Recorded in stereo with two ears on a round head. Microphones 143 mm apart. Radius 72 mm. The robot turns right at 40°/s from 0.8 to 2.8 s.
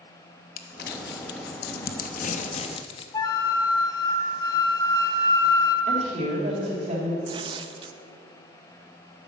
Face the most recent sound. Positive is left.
turn(degrees=-30)  # may be behind; listen again after turning